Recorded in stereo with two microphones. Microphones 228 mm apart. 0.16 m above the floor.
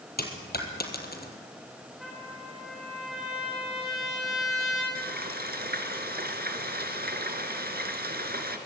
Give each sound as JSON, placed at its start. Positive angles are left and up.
{"t": 0.2, "sound": "a dropped coin", "side_deg": 45, "distance_m": 2.5}
{"t": 2.0, "sound": "a trumpet", "side_deg": 0, "distance_m": 8.5}
{"t": 5.0, "sound": "frying", "side_deg": -45, "distance_m": 2.0}